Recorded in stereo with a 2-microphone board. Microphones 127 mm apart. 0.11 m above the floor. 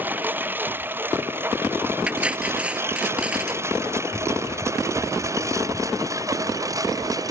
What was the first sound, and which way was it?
A lawn mower, 15° right (ahead or behind).